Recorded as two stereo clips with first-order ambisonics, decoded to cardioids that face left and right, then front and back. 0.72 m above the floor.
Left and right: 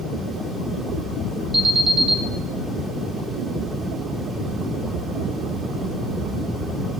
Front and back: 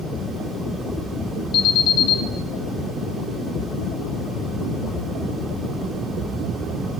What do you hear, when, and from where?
1.5 s an alarm: 25° right, 2.5 m